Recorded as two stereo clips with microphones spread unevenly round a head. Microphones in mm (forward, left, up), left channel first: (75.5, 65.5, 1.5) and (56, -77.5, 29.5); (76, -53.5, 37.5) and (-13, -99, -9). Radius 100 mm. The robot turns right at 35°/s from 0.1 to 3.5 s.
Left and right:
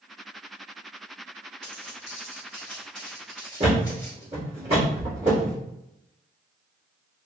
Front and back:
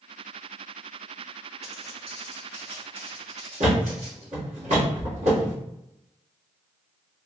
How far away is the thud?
About 1.5 m.